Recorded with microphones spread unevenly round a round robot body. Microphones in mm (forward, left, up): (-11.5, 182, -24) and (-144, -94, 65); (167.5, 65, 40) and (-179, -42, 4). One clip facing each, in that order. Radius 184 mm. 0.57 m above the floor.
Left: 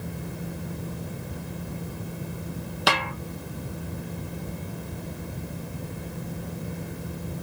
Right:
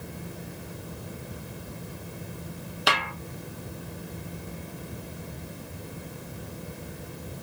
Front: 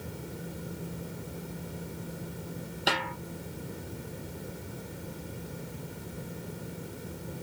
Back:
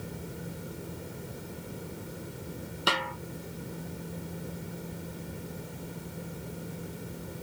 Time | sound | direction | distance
2.9 | a snare drum | 110° left | 0.6 m